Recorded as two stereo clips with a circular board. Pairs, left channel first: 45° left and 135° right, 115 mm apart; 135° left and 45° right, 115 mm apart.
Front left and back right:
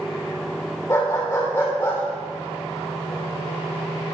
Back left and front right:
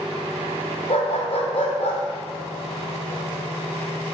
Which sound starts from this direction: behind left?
A dog barking, at 0.9 s.